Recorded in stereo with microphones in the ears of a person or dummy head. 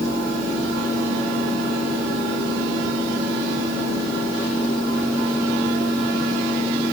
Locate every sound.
Only background noise.